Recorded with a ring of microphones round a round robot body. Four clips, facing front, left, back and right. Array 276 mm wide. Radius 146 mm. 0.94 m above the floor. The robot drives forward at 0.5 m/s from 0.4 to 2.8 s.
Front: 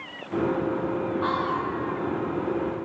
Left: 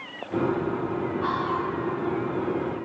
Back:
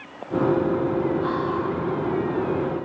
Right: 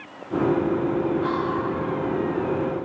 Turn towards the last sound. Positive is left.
turn(degrees=130)